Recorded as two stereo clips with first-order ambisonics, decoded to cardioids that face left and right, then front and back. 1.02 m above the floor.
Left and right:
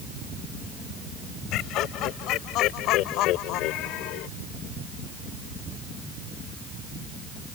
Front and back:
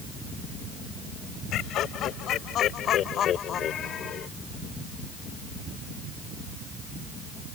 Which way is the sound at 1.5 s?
50° left.